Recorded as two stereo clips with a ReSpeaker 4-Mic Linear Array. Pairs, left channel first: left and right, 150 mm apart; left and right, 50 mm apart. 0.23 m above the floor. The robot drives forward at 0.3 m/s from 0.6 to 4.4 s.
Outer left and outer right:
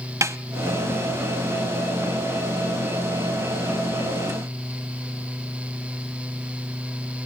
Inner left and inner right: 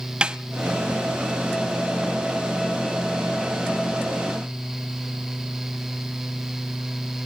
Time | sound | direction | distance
0.2 | a snare drum | 20° right (ahead or behind) | 0.6 m